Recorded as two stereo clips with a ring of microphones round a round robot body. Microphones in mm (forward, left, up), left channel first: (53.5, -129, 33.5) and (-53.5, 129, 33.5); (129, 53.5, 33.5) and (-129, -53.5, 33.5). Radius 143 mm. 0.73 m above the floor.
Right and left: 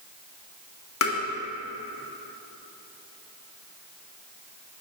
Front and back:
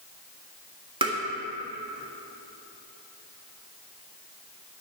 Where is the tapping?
90° right, 1.8 m.